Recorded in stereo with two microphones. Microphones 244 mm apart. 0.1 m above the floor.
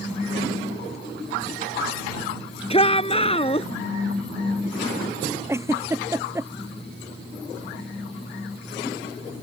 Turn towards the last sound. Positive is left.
turn(degrees=-10)  # may be behind; listen again after turning